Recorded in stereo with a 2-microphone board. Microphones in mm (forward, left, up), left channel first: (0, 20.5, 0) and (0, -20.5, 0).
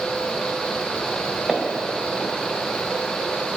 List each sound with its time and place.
1.5 s footsteps: 20° right (ahead or behind), 1.3 m